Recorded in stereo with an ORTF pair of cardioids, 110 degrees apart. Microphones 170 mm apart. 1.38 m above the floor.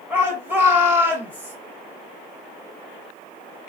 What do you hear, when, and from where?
0.1 s a shout: 10° right, 1.0 m